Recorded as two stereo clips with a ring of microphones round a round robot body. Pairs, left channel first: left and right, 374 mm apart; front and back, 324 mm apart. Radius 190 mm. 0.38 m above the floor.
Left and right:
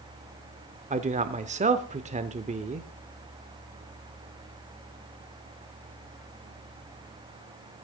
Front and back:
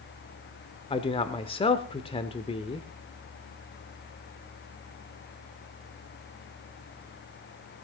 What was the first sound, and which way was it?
A man speaking, 50° right.